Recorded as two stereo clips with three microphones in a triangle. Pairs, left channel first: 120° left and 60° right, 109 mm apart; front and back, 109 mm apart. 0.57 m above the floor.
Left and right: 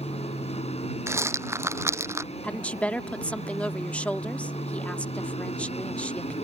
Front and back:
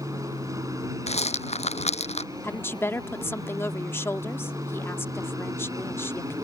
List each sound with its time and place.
0.0 s an aircraft: 120° left
1.1 s a rattle: 5° left
2.4 s a woman speaking: 50° left